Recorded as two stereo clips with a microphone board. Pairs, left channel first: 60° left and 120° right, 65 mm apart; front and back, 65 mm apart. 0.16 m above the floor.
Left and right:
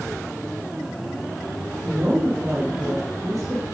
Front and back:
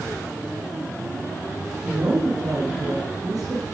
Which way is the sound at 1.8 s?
155° right.